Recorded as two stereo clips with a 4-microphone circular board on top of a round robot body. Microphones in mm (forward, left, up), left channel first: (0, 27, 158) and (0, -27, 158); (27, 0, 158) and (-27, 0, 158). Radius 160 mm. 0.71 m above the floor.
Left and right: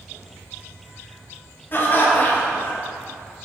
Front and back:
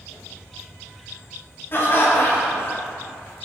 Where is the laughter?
45° left, 1.5 m.